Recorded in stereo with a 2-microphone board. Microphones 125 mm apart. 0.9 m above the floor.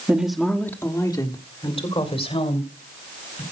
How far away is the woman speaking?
About 1.5 m.